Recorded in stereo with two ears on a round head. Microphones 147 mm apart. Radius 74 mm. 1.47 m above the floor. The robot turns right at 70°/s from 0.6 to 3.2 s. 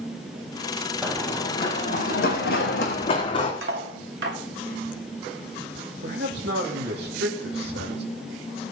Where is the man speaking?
70° right (ahead or behind), 2.5 m.